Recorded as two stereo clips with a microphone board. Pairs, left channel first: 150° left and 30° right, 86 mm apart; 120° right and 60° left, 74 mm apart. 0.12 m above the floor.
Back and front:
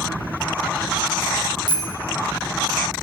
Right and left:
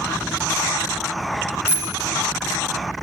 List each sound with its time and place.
1.7 s a bicycle bell: 5° right, 3 m